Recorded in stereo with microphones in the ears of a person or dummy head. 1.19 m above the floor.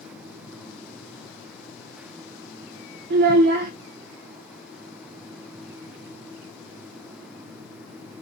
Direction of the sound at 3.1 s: 50° right (ahead or behind).